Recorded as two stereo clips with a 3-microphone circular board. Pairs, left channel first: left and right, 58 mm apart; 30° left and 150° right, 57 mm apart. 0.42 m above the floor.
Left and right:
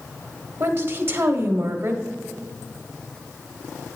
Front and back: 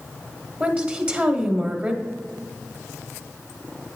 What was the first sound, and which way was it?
A woman speaking, 100° right.